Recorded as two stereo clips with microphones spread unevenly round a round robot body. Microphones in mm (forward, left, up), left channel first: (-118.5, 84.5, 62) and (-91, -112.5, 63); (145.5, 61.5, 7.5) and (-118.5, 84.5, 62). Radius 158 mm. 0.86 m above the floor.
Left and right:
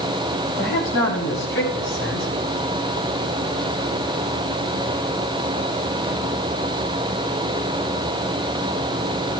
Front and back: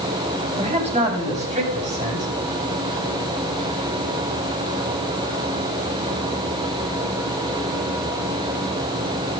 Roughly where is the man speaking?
Left.